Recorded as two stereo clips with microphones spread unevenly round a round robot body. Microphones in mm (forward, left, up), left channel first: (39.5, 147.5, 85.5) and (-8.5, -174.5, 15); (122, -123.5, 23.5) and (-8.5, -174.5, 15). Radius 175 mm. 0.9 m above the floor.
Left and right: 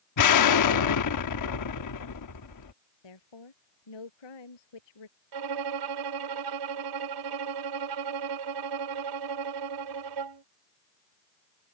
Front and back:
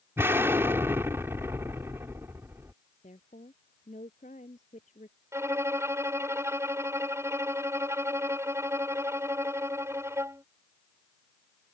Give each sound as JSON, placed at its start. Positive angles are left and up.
{"t": 0.2, "sound": "an explosion", "azimuth_deg": 120}
{"t": 3.0, "sound": "a woman speaking", "azimuth_deg": 90}
{"t": 5.3, "sound": "a violin", "azimuth_deg": -90}